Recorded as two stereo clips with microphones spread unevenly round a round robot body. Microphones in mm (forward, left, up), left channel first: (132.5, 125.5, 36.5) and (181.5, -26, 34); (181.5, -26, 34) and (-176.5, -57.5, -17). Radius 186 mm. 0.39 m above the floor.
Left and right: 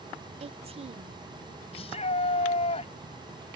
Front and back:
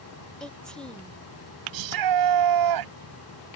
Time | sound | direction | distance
0.4 | a woman speaking | 90° right | ?
1.7 | a shout | 170° left | ?